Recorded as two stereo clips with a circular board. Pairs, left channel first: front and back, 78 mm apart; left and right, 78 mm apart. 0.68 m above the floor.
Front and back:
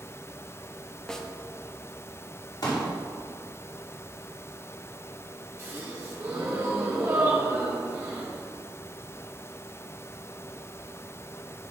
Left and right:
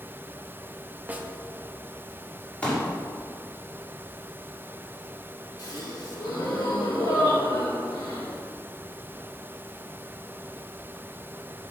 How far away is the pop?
About 1.8 m.